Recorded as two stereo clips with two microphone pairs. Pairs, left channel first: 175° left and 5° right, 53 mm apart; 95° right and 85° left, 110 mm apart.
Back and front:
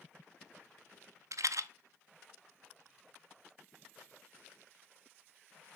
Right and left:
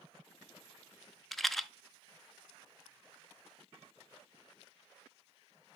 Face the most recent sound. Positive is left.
turn(degrees=0)